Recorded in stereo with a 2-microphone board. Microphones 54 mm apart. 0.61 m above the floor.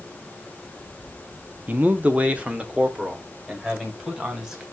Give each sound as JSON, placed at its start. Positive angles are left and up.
{"t": 1.7, "sound": "a man speaking", "side_deg": -30, "distance_m": 0.7}